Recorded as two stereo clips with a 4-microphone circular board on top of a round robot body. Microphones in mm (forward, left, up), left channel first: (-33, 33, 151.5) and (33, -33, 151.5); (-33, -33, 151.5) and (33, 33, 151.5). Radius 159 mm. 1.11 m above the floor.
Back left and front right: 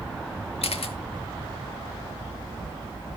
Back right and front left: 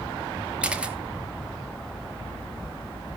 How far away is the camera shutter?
About 1.4 m.